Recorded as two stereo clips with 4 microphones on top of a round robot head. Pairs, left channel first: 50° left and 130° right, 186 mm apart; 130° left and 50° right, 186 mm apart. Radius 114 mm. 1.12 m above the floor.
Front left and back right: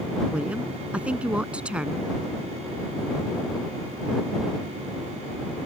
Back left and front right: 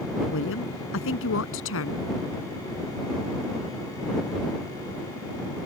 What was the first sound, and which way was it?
A woman speaking, 145° left.